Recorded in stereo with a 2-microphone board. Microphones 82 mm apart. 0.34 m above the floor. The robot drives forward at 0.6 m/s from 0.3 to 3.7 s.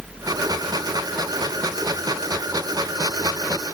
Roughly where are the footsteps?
No footsteps in this recording.